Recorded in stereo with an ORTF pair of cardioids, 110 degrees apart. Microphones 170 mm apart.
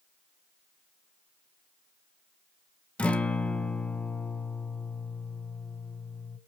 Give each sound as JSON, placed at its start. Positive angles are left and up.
{"t": 3.0, "sound": "a guitar", "azimuth_deg": 5, "distance_m": 1.9}